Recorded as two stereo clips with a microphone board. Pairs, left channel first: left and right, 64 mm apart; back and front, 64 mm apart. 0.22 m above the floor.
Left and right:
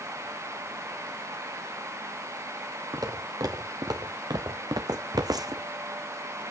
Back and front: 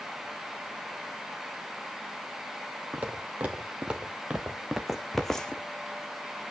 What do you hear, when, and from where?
2.9 s footsteps: 70° right, 1.9 m; by 5.6 s 110° right, 0.8 m